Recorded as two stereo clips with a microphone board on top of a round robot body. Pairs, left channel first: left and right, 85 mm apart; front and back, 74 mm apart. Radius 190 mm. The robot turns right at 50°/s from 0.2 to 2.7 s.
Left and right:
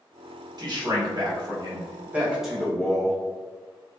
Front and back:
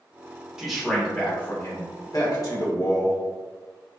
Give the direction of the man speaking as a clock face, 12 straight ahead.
3 o'clock.